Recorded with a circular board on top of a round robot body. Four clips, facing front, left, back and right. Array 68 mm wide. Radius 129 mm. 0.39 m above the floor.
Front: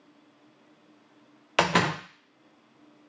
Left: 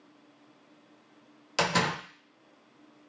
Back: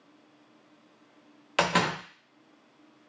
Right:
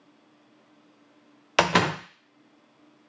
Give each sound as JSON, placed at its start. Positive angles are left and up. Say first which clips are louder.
{"t": 1.6, "sound": "a door slam", "louder": "right 6 dB, front 2 dB", "azimuth_deg": -70, "distance_m": 0.5}